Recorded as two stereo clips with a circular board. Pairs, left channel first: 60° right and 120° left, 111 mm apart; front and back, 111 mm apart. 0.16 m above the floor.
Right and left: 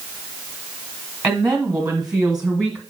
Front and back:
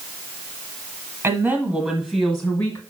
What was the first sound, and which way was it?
A woman speaking, straight behind.